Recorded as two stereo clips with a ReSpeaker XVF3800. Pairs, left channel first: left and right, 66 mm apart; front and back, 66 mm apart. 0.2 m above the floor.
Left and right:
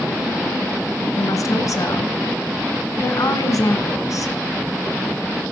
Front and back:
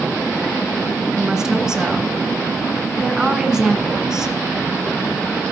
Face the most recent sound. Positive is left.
turn(degrees=100)